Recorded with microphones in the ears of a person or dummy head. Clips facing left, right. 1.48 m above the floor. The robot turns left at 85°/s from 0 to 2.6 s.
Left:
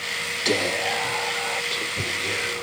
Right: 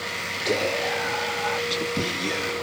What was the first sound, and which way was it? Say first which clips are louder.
Whispering: even; 40° left.